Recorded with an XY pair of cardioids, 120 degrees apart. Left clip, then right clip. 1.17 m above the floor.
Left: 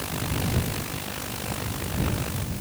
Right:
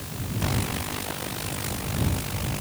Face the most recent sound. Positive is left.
No sound to turn to.